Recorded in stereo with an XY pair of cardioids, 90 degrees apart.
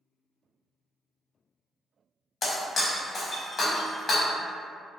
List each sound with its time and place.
2.4 s breaking glass: 50° left, 0.9 m